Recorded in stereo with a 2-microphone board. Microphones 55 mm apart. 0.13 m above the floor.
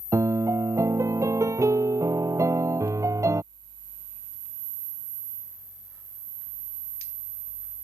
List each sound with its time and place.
0.1 s a piano: 70° right (ahead or behind)